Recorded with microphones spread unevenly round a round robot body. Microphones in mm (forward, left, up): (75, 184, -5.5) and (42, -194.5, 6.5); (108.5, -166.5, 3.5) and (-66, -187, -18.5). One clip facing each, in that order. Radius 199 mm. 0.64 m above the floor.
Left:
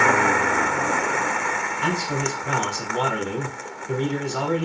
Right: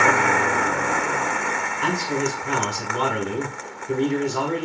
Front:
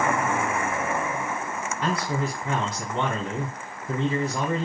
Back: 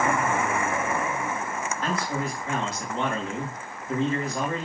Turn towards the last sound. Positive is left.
turn(degrees=-10)